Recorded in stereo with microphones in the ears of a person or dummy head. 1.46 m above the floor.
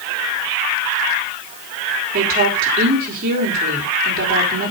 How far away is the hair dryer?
No hair dryer in this recording.